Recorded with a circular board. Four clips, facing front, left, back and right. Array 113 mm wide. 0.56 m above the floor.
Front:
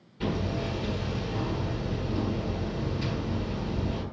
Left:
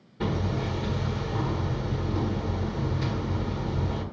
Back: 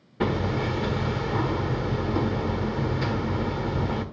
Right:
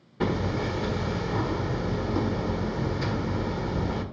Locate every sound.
0.2 s hammering: 160° right, 1.4 m